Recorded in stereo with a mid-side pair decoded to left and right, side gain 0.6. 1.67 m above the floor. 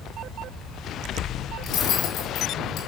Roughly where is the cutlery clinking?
Ahead left.